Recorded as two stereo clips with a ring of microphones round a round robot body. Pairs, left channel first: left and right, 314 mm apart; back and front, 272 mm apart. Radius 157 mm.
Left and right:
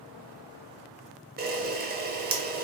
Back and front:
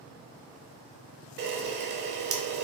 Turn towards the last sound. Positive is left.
turn(degrees=-40)